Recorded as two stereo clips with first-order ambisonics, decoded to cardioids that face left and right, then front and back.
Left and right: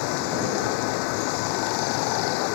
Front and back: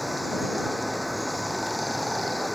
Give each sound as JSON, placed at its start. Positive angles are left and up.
{"t": 0.0, "sound": "running water", "azimuth_deg": 90}